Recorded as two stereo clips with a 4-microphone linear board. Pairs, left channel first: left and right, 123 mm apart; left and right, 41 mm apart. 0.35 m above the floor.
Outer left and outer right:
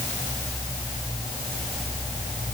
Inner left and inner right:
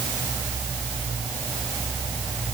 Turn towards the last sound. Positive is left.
No sound to turn to.